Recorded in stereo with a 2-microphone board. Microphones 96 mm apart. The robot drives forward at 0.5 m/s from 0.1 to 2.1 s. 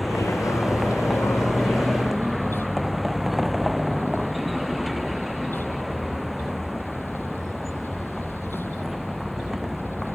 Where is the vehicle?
Centre (ahead or behind).